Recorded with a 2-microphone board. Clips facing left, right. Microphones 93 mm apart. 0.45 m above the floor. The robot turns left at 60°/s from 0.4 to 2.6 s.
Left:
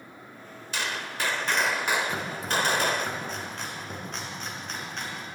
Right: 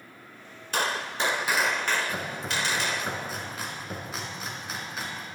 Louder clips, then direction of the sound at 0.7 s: Right 4 dB; 125° right.